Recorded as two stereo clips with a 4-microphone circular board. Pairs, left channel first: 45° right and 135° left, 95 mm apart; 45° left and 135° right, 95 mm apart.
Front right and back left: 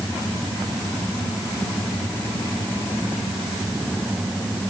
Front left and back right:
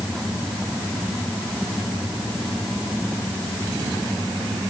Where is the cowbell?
I don't hear a cowbell.